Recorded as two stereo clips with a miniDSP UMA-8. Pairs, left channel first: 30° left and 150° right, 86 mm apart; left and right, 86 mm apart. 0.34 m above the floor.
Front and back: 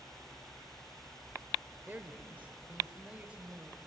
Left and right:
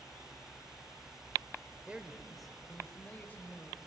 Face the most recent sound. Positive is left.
turn(degrees=140)